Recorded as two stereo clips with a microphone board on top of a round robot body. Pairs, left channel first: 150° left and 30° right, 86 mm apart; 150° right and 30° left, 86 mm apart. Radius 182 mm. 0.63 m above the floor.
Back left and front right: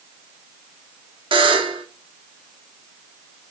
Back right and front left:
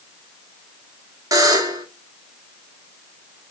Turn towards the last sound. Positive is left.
turn(degrees=-15)